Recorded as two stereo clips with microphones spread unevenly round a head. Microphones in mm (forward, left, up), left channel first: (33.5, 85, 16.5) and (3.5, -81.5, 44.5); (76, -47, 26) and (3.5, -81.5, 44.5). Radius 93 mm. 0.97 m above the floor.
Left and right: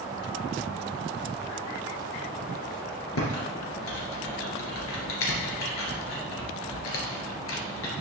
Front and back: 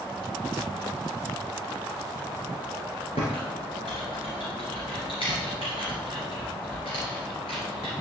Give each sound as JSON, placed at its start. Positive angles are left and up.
{"t": 3.1, "sound": "typing on a keyboard", "azimuth_deg": 85, "distance_m": 2.5}